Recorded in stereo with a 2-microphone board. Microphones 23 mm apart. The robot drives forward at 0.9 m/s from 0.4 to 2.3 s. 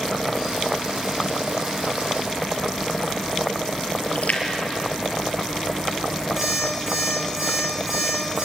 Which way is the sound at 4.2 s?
75° left (ahead or behind).